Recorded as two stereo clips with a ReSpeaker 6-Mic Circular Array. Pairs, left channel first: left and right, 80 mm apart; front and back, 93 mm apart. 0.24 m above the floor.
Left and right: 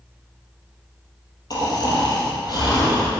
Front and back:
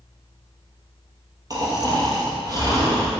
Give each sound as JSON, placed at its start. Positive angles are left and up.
{"t": 1.5, "sound": "snoring", "azimuth_deg": 130, "distance_m": 2.5}